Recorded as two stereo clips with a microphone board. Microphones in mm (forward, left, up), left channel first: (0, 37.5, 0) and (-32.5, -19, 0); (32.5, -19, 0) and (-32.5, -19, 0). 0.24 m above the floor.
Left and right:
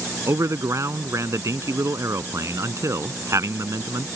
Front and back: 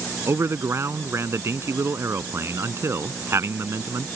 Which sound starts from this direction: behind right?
A man speaking, at 0.3 s.